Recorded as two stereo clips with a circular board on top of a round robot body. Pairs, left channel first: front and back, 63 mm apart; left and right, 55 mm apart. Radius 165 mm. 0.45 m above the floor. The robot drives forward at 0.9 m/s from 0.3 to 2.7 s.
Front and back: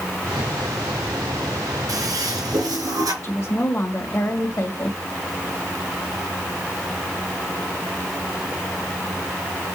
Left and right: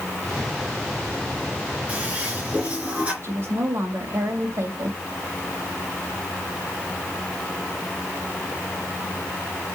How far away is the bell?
I don't hear a bell.